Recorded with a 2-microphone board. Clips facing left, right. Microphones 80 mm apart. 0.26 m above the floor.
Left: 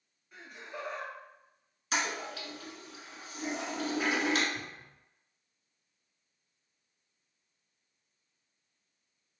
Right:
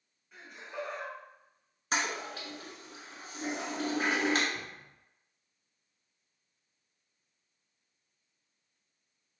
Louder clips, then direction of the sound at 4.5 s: Even; 40° right (ahead or behind).